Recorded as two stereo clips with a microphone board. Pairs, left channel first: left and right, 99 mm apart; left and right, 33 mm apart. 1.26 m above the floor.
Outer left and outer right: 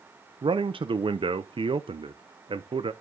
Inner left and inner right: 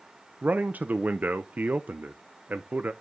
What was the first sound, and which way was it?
A man speaking, 60° right (ahead or behind).